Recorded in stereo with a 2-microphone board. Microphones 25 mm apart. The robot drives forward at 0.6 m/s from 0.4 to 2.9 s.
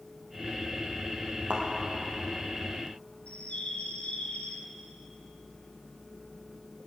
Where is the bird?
60° left (ahead or behind), 1.9 m.